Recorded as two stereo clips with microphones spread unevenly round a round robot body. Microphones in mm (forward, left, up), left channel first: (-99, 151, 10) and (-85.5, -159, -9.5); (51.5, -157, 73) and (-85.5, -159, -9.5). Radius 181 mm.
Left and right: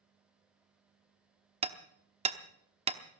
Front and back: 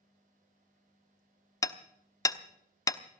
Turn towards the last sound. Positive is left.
turn(degrees=-110)